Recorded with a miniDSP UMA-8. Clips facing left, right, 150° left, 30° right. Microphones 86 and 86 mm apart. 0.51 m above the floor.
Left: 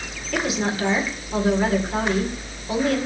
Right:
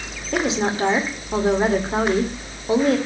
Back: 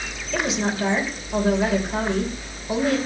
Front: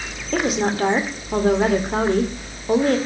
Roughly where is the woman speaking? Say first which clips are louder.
Right 3 dB, front 4 dB; ahead right.